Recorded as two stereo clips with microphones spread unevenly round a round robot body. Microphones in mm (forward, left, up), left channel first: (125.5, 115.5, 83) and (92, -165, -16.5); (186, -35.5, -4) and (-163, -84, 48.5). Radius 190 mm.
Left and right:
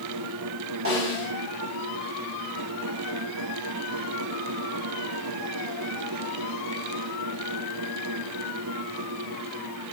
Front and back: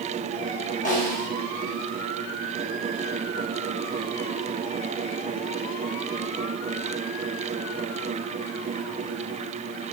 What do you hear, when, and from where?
0.8 s a snare drum: 60° right, 4 m